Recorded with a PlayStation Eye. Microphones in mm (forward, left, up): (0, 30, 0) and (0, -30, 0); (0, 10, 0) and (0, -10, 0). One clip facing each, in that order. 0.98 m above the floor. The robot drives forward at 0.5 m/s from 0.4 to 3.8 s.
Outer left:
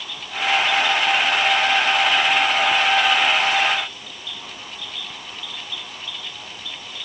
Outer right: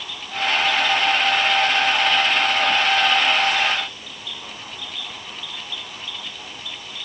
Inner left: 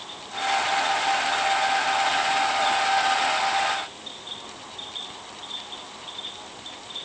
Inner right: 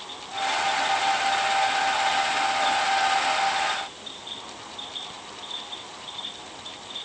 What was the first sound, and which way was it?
Only background noise.